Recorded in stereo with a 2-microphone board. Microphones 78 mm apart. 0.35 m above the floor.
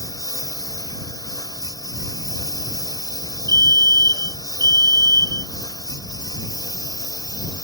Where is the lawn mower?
50° left (ahead or behind); by 7.7 s 60° left (ahead or behind).